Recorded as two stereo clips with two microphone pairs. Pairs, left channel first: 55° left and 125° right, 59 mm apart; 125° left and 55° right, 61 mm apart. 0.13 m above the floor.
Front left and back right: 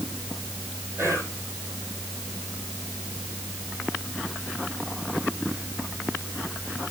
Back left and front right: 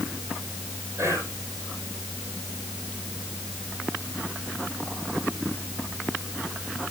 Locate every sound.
1.0 s whispering: 85° right, 5 m